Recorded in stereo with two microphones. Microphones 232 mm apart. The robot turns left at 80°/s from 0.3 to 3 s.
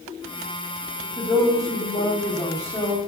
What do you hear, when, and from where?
1.2 s a woman speaking: 20° left (ahead or behind), 0.8 m; by 3.0 s 5° right (ahead or behind), 0.8 m